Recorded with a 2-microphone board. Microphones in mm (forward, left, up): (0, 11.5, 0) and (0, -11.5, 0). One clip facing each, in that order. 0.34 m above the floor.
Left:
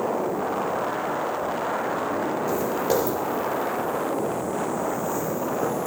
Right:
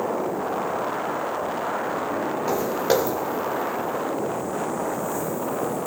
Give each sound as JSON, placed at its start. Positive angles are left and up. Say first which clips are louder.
{"t": 2.5, "sound": "footsteps", "louder": "right 3 dB", "side_deg": -45, "distance_m": 4.0}